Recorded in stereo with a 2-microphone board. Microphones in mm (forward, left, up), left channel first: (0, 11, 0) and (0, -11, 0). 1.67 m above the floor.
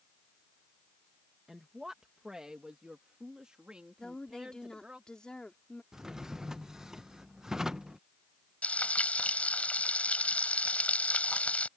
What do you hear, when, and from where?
1.5 s a woman speaking: 20° right (ahead or behind); by 5.0 s 50° right (ahead or behind)
4.0 s a woman speaking: 35° left (ahead or behind)
5.9 s a drawer: 25° right (ahead or behind)
8.6 s frying: 75° left (ahead or behind)